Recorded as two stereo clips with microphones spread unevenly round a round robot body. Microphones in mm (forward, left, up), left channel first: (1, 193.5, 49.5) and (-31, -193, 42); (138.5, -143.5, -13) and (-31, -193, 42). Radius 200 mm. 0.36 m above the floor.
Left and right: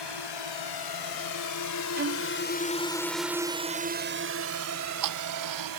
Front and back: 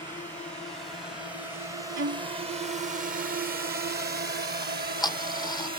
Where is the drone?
90° left; by 5.8 s 120° right.